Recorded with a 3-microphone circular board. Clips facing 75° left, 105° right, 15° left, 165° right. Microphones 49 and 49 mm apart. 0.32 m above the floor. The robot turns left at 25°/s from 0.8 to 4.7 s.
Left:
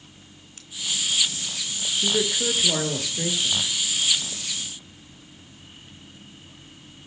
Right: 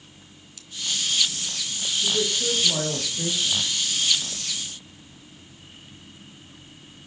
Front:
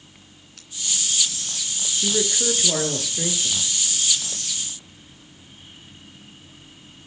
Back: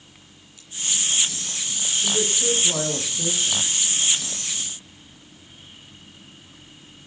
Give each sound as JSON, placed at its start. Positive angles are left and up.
{"t": 0.6, "sound": "scissors", "azimuth_deg": 25, "distance_m": 3.0}
{"t": 2.0, "sound": "a man speaking", "azimuth_deg": 50, "distance_m": 5.0}